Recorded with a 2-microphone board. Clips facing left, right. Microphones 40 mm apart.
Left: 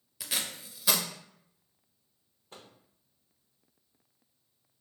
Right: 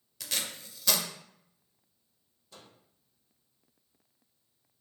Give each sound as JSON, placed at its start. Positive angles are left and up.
{"t": 0.2, "sound": "tape being pulled", "side_deg": 10, "distance_m": 0.5}
{"t": 2.5, "sound": "a microwave", "side_deg": 45, "distance_m": 0.8}